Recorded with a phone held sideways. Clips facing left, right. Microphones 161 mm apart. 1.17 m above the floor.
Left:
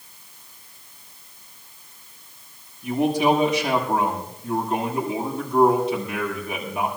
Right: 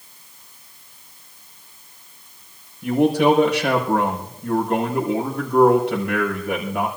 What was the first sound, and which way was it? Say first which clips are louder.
A man speaking: right 4 dB; 80° right.